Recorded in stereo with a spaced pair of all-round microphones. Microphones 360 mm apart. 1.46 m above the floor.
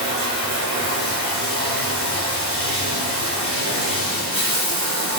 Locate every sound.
0.0 s running water: 45° right (ahead or behind), 1.8 m